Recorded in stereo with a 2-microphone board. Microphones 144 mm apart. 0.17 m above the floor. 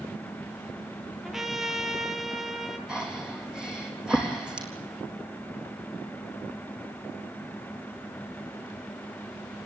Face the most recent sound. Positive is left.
turn(degrees=-5)  # may be behind; listen again after turning